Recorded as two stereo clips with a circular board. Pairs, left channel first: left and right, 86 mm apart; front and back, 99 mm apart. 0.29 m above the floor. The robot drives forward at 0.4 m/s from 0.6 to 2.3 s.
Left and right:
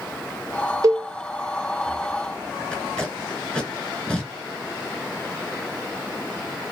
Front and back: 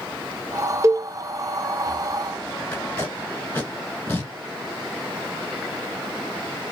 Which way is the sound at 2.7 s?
35° left.